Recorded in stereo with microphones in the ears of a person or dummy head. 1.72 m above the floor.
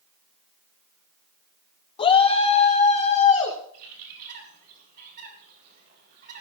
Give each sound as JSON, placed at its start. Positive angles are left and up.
{"t": 2.0, "sound": "a shout", "side_deg": 30, "distance_m": 1.2}
{"t": 3.7, "sound": "a bird", "side_deg": -50, "distance_m": 4.0}